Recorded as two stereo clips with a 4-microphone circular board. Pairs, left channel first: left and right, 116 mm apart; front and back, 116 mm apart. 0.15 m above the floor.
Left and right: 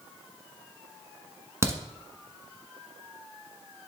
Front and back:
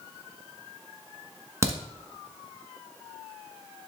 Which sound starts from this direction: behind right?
A crack, at 1.6 s.